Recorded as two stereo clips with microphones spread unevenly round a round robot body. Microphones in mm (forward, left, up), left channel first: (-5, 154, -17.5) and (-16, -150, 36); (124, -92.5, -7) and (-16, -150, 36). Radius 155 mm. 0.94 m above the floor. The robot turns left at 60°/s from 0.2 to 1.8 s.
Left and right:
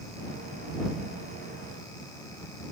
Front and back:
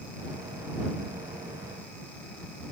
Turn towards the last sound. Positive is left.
No sound to turn to.